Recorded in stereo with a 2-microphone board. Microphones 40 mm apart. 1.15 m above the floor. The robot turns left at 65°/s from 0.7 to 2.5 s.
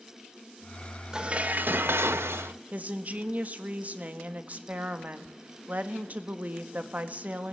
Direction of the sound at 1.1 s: 20° right.